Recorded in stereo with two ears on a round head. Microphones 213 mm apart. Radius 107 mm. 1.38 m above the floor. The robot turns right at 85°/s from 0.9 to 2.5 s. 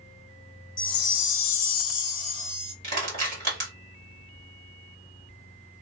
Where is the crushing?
40° right (ahead or behind), 1.4 m.